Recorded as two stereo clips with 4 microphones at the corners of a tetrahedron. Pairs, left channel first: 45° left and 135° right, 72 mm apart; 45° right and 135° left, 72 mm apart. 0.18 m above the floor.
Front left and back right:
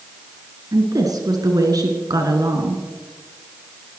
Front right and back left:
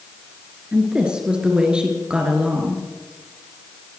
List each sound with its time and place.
0.7 s a woman speaking: 150° right, 2.5 m